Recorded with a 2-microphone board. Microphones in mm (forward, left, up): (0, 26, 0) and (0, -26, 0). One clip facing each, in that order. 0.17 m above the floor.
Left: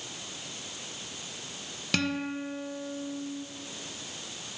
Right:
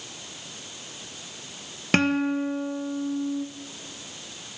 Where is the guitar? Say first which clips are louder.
Right 8 dB; 40° right (ahead or behind), 1.6 m.